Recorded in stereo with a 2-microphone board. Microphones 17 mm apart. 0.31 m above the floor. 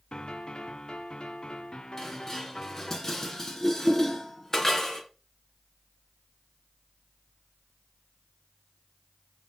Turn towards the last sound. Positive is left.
turn(degrees=20)  # may be behind; listen again after turning